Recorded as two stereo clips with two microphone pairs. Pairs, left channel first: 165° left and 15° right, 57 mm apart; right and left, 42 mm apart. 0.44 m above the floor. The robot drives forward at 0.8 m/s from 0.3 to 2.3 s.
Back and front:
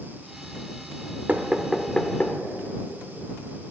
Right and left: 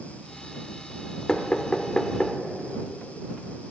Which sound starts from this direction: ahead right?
Knocking, at 1.3 s.